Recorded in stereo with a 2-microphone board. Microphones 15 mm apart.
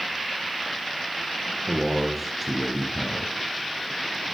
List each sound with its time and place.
1.7 s a man speaking: 15° right (ahead or behind), 2.5 m; by 4.3 s 25° left (ahead or behind), 1.6 m